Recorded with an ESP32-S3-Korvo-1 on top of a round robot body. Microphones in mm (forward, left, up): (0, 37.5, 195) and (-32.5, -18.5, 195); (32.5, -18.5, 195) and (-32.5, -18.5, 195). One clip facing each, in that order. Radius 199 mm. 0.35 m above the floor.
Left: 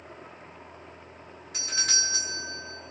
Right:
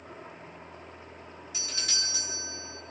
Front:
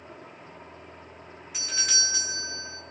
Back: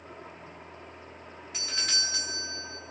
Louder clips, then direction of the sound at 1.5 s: Left 7 dB, front 3 dB; 90° left.